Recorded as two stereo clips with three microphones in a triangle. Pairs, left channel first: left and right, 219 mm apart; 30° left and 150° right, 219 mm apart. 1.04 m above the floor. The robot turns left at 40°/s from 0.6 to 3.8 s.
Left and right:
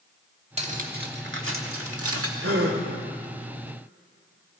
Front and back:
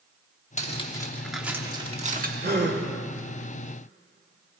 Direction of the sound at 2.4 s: 100° right.